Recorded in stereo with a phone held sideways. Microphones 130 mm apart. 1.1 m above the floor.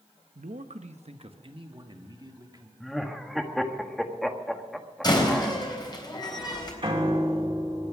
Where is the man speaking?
80° right, 0.8 m; by 2.7 s 30° right (ahead or behind), 2 m.